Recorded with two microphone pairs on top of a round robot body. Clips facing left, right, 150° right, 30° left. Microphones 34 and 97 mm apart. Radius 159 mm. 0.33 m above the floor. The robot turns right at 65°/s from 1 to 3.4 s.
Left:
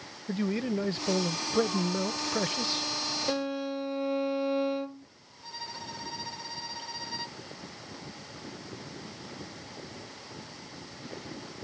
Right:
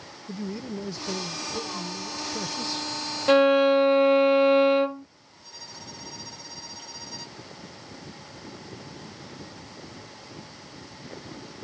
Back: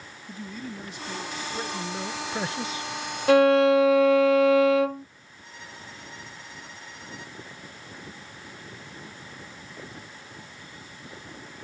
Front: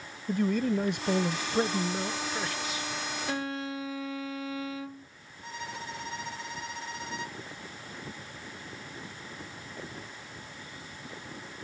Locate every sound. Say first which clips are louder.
0.3 s a man speaking: left 4 dB, front 11 dB; 50° left; by 2.9 s 170° left
3.3 s a violin: right 17 dB, back 20 dB; 130° right; by 5.1 s 125° right
5.4 s a violin: left 4 dB, front 6 dB; 30° left